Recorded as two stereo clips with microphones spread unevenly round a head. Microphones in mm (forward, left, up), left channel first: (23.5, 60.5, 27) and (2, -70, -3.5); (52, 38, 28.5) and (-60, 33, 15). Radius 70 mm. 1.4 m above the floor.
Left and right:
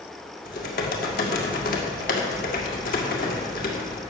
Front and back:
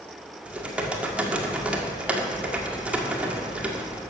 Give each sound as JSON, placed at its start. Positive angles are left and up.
{"t": 0.5, "sound": "typing on a keyboard", "azimuth_deg": 100, "distance_m": 1.9}